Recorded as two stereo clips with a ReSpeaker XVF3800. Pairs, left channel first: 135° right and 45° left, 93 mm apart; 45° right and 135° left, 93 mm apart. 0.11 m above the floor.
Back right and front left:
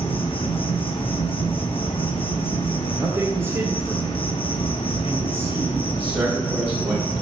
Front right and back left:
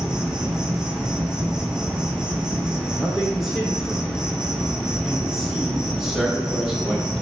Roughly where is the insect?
Behind right.